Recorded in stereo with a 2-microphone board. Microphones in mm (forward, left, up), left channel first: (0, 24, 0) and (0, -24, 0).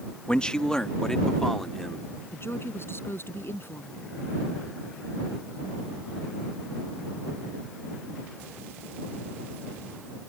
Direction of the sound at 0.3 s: 25° left (ahead or behind).